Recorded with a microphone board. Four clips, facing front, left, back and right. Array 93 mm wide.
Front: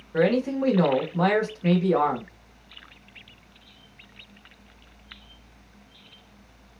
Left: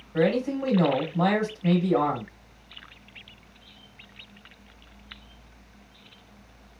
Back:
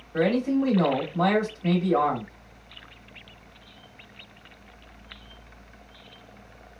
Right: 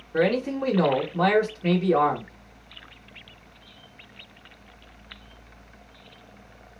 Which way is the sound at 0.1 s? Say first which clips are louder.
Right 1 dB, front 1 dB; 60° right.